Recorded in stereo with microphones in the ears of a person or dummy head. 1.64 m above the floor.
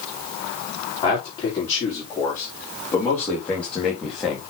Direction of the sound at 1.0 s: 25° left (ahead or behind).